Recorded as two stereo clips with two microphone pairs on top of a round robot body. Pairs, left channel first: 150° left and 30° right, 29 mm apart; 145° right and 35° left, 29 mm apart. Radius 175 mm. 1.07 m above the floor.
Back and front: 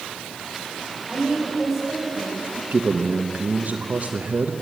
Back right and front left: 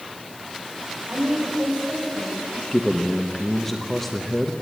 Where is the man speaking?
60° right, 1.2 m.